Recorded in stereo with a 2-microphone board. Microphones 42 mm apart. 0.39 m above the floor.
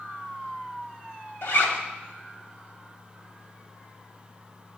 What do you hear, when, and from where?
1.4 s a zipper: 70° left (ahead or behind), 0.9 m